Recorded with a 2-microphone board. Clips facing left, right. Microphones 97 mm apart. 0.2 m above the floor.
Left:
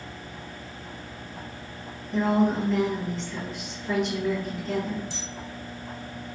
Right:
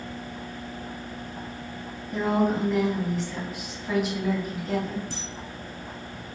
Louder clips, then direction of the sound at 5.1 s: Right 2 dB; 45° right (ahead or behind).